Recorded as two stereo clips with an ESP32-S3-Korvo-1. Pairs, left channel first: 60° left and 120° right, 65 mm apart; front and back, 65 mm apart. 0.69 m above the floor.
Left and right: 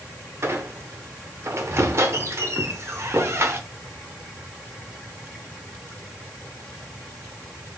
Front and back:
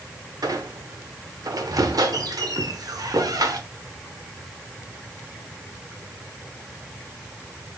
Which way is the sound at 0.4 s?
165° right.